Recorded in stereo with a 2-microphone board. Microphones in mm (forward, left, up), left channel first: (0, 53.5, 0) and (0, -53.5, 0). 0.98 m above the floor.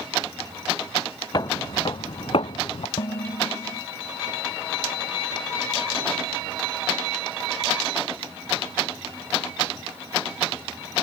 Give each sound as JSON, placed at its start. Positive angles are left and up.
{"t": 1.3, "sound": "footsteps", "side_deg": 35}
{"t": 3.0, "sound": "dishes clattering", "side_deg": 50}